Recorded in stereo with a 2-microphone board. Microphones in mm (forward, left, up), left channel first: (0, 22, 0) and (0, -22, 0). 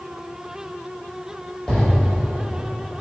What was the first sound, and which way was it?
An explosion, 10° left (ahead or behind).